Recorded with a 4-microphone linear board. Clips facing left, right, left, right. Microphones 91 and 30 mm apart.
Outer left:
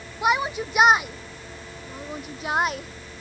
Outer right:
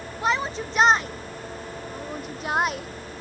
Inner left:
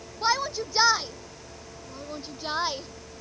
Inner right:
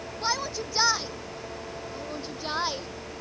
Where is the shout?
15° left (ahead or behind); by 3.2 s centre (ahead or behind).